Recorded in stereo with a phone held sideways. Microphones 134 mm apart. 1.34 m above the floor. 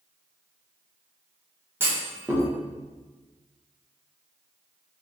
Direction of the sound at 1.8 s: 20° right (ahead or behind).